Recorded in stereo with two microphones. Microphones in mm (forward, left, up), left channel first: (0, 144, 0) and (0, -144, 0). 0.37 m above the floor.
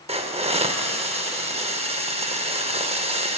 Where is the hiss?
20° right (ahead or behind), 0.5 m.